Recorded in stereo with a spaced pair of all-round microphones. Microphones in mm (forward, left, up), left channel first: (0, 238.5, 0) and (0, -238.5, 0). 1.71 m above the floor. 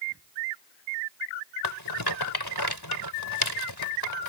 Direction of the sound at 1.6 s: 50° left (ahead or behind).